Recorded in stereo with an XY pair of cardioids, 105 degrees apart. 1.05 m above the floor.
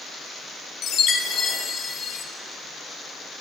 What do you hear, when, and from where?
0.8 s a chime: 60° left, 1.1 m